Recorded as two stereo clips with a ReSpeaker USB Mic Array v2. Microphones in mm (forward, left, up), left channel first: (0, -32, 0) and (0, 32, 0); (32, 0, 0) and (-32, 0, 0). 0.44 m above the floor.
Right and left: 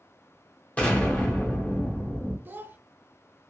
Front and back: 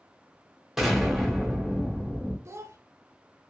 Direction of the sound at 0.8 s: 100° right.